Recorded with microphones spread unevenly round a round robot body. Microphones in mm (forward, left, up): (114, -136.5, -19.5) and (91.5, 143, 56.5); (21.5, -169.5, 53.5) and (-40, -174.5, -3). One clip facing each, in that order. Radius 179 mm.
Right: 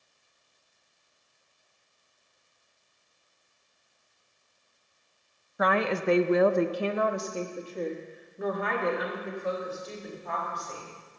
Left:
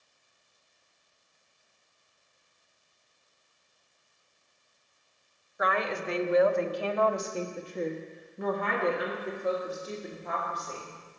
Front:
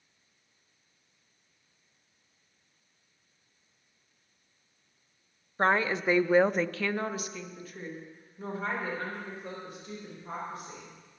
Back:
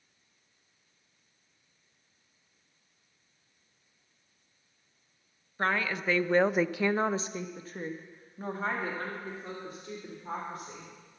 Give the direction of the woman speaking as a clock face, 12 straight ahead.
2 o'clock.